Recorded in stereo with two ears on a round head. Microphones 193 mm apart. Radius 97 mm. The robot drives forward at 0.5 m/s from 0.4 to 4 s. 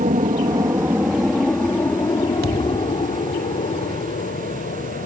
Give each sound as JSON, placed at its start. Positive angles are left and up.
{"t": 0.0, "sound": "an aircraft", "side_deg": -30}
{"t": 2.4, "sound": "a thud", "side_deg": -45}